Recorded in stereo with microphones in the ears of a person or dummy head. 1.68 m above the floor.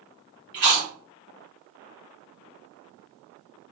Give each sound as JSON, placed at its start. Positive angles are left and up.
{"t": 0.5, "sound": "chewing", "side_deg": -35, "distance_m": 1.1}